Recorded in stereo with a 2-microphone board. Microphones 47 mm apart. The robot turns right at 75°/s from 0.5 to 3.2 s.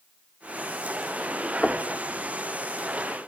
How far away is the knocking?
About 0.6 m.